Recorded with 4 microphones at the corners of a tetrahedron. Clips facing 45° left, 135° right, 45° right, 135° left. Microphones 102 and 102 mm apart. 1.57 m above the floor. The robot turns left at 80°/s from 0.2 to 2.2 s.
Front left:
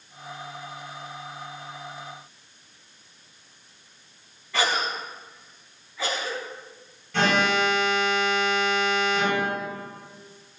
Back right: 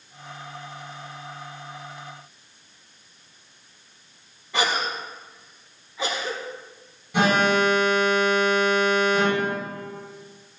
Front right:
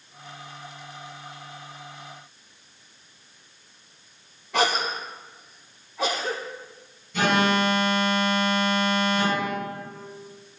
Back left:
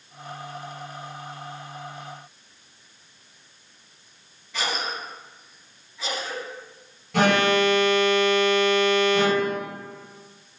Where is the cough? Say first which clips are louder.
Back right 1 dB, front right 6 dB; 65° right, 3.5 m.